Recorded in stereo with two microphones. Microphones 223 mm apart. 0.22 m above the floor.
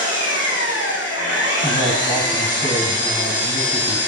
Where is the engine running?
55° left (ahead or behind), 5.5 m.